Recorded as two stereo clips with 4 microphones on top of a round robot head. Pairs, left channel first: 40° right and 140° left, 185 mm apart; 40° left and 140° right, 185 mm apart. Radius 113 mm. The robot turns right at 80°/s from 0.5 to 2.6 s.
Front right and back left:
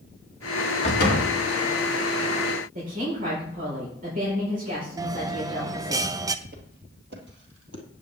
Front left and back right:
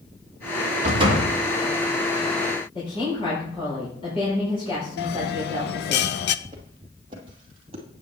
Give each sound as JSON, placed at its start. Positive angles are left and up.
{"t": 0.8, "sound": "a door slam", "azimuth_deg": -95, "distance_m": 3.0}
{"t": 2.8, "sound": "a woman speaking", "azimuth_deg": 100, "distance_m": 4.5}
{"t": 5.0, "sound": "a bell", "azimuth_deg": 70, "distance_m": 0.5}
{"t": 6.5, "sound": "footsteps", "azimuth_deg": 160, "distance_m": 2.0}